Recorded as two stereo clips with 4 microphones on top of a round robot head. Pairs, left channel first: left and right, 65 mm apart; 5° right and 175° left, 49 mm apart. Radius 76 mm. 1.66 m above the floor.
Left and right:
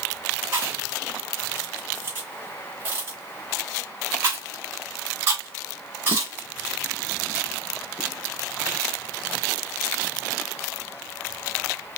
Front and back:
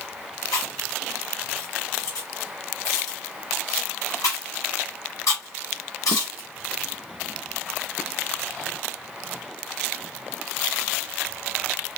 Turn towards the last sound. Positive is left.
turn(degrees=-30)